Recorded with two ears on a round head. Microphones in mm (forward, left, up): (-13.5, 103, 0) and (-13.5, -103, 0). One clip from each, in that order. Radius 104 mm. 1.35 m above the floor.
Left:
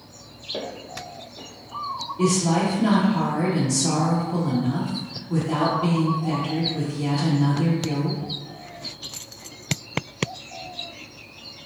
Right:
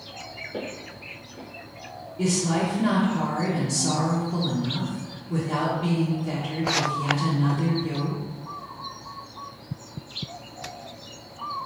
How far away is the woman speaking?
About 0.8 m.